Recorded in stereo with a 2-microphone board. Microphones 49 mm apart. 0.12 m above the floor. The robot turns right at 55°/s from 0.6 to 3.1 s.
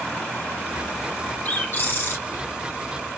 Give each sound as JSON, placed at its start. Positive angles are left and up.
{"t": 1.4, "sound": "a bird", "azimuth_deg": 45, "distance_m": 1.5}